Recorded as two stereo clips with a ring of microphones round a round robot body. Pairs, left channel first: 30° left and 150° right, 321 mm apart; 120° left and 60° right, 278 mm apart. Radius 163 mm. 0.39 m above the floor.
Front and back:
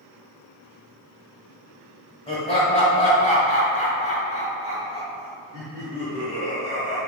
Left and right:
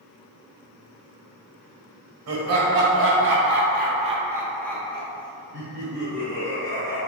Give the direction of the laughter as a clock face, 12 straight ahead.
1 o'clock.